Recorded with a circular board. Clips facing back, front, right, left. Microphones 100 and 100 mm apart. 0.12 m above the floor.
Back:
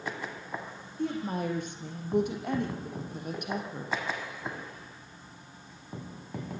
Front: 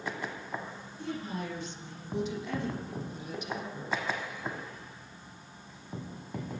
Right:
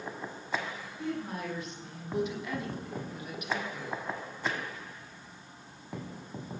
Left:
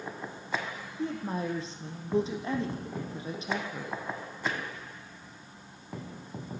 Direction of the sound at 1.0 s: 145° left.